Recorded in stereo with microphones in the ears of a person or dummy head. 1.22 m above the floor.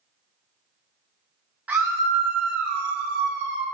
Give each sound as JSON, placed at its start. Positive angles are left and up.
{"t": 1.7, "sound": "a scream", "side_deg": -10, "distance_m": 1.2}